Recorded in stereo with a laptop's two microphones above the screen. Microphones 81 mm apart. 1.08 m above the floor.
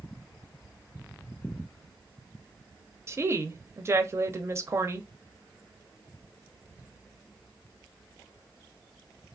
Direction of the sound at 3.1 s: 30° right (ahead or behind).